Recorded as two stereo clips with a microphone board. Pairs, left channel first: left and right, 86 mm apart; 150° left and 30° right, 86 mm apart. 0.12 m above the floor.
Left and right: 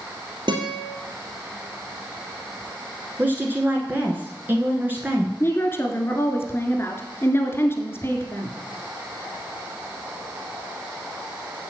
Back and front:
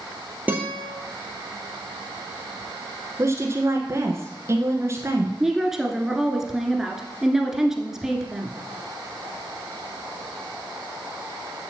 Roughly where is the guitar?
Right.